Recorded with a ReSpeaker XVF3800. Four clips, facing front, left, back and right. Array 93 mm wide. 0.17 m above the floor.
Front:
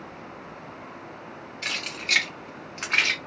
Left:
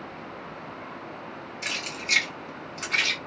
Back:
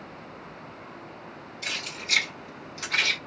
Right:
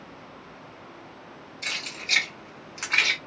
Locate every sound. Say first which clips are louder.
1.6 s keys jangling: left 1 dB, front 3 dB; 25° left, 1.5 m; by 3.2 s 40° right, 1.3 m